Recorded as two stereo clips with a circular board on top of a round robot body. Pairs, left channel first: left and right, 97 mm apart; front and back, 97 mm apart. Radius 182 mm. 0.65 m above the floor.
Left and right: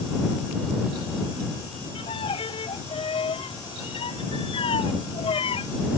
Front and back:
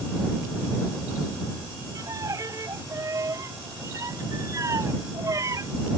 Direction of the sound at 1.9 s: 120° left.